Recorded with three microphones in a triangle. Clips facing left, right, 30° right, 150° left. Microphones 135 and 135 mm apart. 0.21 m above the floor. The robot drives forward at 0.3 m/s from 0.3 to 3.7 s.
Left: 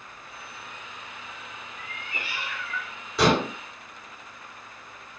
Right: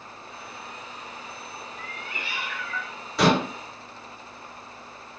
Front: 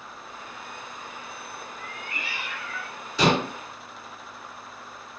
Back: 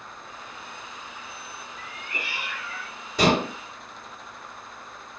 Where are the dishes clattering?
Straight behind, 1.8 m.